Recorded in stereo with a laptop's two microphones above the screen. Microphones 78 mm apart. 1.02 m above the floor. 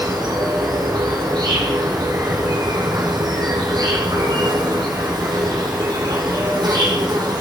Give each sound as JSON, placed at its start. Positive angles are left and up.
{"t": 0.0, "sound": "an insect", "side_deg": -75, "distance_m": 3.0}